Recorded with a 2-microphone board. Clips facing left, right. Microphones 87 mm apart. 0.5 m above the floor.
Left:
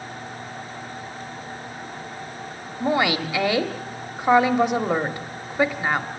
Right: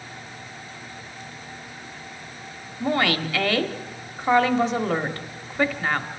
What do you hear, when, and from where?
2.8 s a woman speaking: 15° left (ahead or behind), 1.0 m